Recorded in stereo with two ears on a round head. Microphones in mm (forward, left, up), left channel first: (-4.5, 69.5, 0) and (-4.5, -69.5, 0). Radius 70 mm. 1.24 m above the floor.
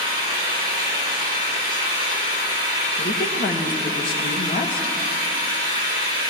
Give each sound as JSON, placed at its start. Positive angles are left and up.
{"t": 0.0, "sound": "an engine running", "side_deg": -35, "distance_m": 3.5}
{"t": 3.0, "sound": "a woman speaking", "side_deg": 70, "distance_m": 1.9}